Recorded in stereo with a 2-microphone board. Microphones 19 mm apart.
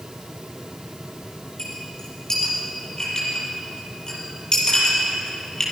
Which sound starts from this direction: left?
A clink, at 1.6 s.